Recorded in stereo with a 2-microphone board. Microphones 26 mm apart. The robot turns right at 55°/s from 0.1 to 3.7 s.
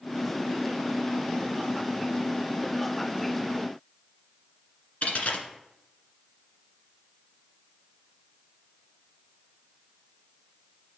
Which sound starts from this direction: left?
A dropped coin, at 5.0 s.